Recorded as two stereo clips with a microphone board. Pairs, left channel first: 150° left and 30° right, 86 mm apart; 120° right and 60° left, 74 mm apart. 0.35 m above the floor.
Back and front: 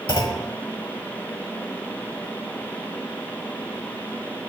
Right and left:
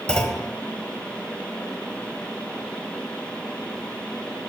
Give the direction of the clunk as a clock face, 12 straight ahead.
7 o'clock.